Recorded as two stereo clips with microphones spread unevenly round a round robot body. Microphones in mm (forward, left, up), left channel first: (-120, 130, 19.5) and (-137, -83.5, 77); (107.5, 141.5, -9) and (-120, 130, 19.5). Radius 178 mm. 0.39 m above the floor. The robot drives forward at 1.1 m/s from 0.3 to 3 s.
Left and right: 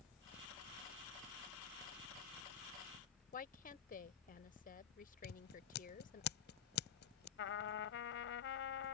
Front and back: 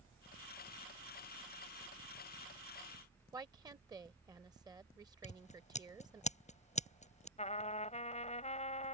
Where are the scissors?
60° left.